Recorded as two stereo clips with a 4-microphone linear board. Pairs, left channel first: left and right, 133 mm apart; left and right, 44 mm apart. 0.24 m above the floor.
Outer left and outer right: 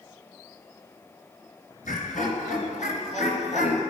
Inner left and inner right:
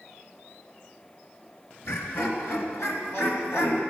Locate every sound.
1.9 s laughter: 70° left (ahead or behind), 4 m; by 3.8 s 65° left (ahead or behind), 3 m